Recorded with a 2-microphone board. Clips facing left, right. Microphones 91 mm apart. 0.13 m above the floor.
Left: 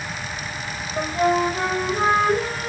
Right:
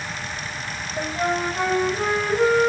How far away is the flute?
About 4.5 m.